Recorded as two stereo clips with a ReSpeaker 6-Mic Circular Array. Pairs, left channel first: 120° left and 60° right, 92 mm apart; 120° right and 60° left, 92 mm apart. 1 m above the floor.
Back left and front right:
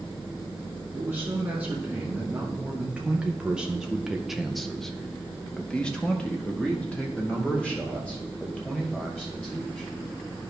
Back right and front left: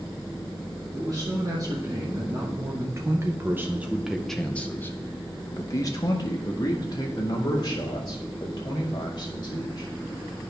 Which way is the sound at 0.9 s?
15° left.